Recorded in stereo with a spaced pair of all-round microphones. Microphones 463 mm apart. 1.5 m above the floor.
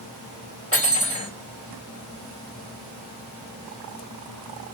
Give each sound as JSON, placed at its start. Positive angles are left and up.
{"t": 0.7, "sound": "cutlery clinking", "side_deg": 35, "distance_m": 2.5}